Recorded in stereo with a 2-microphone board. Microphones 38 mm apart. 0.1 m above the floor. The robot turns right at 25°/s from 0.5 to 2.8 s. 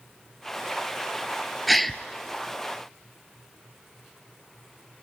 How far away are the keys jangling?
No keys jangling in this recording.